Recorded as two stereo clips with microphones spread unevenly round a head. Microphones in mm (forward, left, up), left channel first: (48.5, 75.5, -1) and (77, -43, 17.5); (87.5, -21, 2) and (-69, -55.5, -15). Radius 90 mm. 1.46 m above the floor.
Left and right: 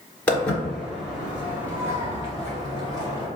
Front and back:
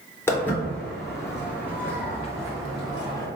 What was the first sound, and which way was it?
Footsteps, 20° left.